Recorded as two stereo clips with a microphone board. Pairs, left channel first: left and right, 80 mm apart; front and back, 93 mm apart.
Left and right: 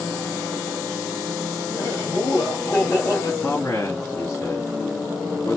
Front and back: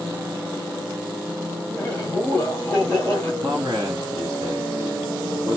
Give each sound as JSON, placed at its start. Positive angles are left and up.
{"t": 1.7, "sound": "laughter", "azimuth_deg": 65, "distance_m": 2.0}
{"t": 3.4, "sound": "a man speaking", "azimuth_deg": 150, "distance_m": 1.9}